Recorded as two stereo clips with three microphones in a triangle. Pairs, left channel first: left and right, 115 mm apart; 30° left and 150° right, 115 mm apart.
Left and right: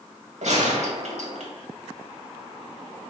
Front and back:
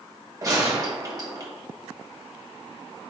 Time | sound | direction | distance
0.4 | a gunshot | 95° right | 1.7 m